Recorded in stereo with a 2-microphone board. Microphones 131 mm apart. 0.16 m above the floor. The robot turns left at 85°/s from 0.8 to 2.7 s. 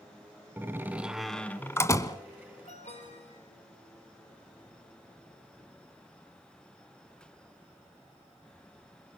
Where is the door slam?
15° right (ahead or behind), 1.1 m; by 2.2 s 25° left (ahead or behind), 1.1 m.